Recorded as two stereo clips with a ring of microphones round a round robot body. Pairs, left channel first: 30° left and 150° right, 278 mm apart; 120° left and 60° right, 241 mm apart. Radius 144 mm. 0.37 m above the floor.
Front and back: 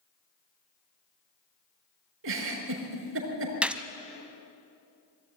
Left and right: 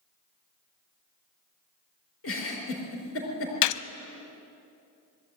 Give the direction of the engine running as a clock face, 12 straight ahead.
I don't hear an engine running.